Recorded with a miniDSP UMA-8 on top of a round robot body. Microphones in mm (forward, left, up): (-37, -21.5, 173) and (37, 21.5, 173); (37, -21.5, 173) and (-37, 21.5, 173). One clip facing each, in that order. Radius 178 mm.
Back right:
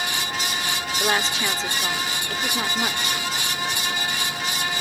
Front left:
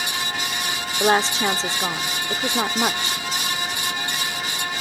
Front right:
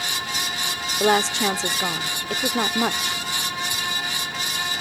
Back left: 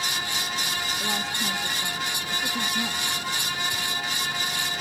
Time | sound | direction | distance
1.0 | a woman speaking | 30° right | ?